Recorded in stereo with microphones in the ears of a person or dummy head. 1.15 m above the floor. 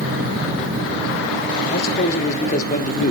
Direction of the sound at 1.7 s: 50° left (ahead or behind).